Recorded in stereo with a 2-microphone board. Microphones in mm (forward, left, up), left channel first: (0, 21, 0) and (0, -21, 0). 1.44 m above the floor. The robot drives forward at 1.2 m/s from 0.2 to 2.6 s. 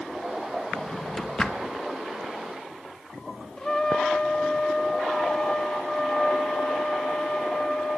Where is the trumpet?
15° left (ahead or behind), 0.7 m.